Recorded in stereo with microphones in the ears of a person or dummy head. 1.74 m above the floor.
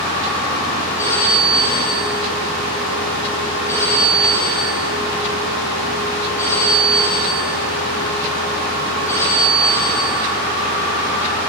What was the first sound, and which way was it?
A phone ringing, 15° left (ahead or behind).